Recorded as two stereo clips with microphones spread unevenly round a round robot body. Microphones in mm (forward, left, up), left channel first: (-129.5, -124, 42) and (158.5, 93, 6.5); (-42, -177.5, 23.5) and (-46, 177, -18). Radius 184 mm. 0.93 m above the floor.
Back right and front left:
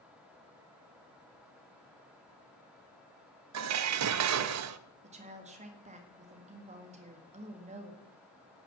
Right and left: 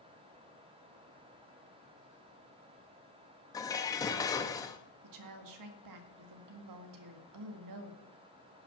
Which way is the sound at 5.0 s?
105° left.